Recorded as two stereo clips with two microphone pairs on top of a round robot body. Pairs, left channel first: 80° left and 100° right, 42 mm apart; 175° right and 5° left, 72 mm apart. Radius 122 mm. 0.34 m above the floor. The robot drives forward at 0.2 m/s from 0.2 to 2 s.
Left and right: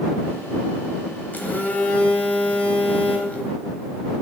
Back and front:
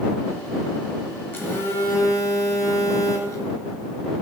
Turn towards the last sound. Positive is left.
turn(degrees=130)